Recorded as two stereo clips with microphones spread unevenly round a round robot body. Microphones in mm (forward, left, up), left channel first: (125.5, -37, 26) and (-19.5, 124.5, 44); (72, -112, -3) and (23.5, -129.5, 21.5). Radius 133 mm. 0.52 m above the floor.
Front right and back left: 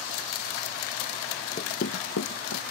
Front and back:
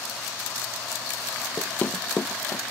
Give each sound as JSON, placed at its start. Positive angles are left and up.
{"t": 1.6, "sound": "running footsteps", "azimuth_deg": -80}